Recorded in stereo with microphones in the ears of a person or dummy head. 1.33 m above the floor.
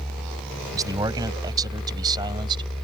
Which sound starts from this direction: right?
A man speaking, at 0.7 s.